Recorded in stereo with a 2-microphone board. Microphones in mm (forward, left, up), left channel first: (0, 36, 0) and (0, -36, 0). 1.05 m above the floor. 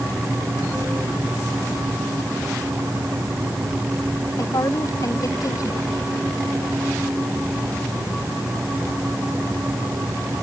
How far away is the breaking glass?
No breaking glass in this recording.